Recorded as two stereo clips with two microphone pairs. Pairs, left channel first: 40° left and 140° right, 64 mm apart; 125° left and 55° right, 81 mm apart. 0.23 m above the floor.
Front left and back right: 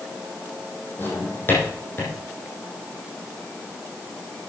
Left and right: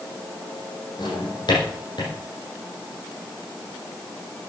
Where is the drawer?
100° left, 5 m.